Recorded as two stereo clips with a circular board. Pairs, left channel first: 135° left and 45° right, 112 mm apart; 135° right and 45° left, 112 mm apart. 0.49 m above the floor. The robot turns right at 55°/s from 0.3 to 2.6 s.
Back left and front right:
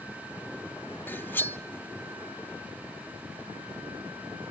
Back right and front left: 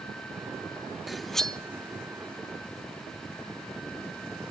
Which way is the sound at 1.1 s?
130° left.